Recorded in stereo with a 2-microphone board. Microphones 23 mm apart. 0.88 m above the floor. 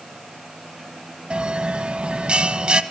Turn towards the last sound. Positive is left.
turn(degrees=-50)  # may be behind; listen again after turning